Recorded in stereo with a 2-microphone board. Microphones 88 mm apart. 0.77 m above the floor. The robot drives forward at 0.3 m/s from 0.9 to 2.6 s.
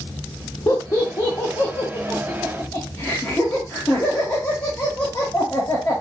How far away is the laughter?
About 1.0 m.